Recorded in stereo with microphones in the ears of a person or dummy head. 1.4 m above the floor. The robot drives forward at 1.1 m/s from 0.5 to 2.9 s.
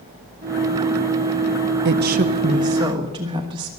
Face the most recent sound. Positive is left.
turn(degrees=-20)  # may be behind; listen again after turning